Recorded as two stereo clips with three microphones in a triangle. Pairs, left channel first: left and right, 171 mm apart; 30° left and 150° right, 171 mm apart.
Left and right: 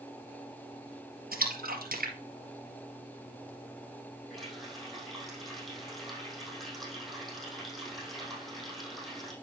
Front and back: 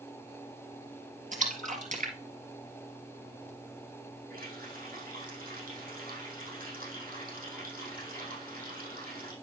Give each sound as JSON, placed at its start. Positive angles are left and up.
{"t": 1.3, "sound": "a splash", "azimuth_deg": -115, "distance_m": 2.0}
{"t": 4.3, "sound": "a running tap", "azimuth_deg": 180, "distance_m": 4.5}